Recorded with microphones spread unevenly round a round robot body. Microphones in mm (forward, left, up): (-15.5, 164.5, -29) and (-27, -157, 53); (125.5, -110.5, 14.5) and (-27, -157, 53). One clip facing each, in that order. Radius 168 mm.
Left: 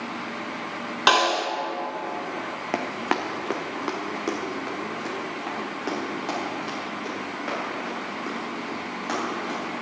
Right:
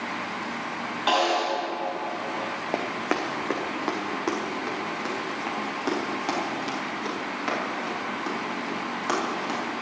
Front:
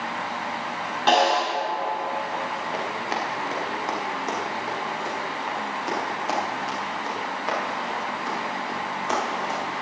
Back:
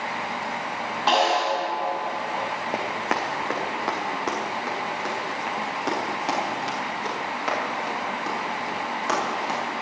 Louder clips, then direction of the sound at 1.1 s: Even, front 2 dB; 90° left.